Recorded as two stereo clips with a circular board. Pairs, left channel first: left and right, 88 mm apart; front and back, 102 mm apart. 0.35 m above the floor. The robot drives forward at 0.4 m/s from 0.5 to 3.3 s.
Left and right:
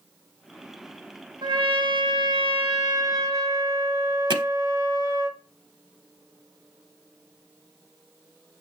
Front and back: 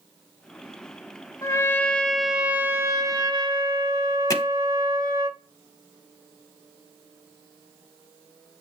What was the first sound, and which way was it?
A trumpet, 55° right.